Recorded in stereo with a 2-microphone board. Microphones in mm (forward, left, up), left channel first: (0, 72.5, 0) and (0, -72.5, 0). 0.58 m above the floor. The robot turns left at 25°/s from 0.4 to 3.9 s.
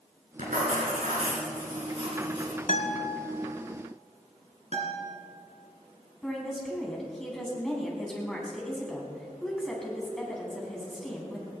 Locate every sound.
0.4 s writing: 95° right, 4.5 m; by 2.6 s 150° right, 4.5 m
2.7 s a guitar: 70° left (ahead or behind), 1.8 m; by 3.1 s 65° left (ahead or behind), 1.8 m
4.7 s a guitar: 55° right (ahead or behind), 3 m
6.2 s a woman speaking: 5° left (ahead or behind), 4 m